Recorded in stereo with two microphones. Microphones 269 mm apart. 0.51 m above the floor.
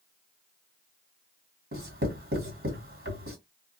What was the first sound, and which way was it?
Writing, 40° right (ahead or behind).